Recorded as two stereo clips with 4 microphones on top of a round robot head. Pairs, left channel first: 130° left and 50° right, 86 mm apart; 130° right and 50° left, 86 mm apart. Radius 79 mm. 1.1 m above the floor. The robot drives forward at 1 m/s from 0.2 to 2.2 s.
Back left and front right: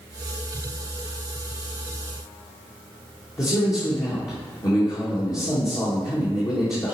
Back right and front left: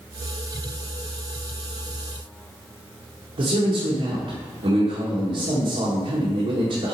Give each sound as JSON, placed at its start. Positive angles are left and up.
{"t": 3.4, "sound": "a man speaking", "azimuth_deg": 80, "distance_m": 1.7}